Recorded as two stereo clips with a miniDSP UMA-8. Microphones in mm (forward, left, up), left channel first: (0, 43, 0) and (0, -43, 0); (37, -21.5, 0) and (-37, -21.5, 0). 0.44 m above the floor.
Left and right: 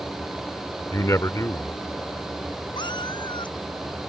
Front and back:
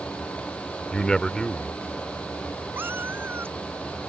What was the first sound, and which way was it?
A man speaking, 75° left.